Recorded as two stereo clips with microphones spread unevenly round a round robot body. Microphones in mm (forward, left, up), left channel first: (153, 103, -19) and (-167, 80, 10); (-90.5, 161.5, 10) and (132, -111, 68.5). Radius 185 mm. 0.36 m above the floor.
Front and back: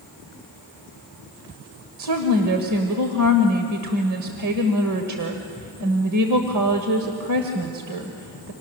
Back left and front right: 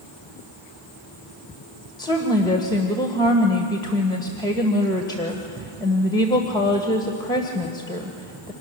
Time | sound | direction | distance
2.0 | a woman speaking | 165° right | 1.7 m